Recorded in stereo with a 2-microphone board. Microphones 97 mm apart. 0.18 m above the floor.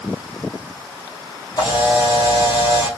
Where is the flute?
I don't hear a flute.